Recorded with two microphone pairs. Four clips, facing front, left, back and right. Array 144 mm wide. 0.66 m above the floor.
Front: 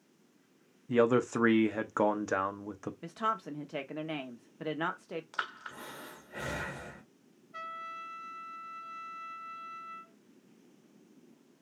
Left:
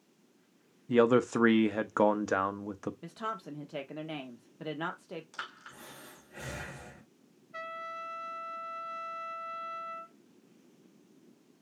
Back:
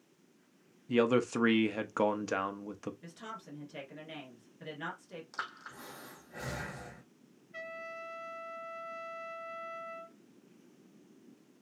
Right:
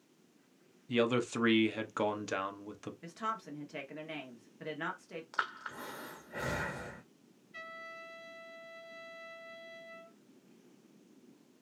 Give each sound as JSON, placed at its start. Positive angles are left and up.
{"t": 0.9, "sound": "a man speaking", "azimuth_deg": 75, "distance_m": 0.7}
{"t": 3.0, "sound": "a woman speaking", "azimuth_deg": 25, "distance_m": 1.1}
{"t": 5.3, "sound": "breathing", "azimuth_deg": -65, "distance_m": 1.4}
{"t": 7.5, "sound": "a trumpet", "azimuth_deg": 65, "distance_m": 1.7}